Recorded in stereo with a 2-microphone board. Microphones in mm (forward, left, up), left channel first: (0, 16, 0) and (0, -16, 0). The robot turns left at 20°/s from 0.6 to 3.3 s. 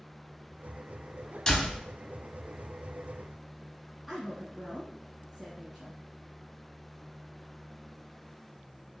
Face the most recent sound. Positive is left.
turn(degrees=0)  # may be behind; listen again after turning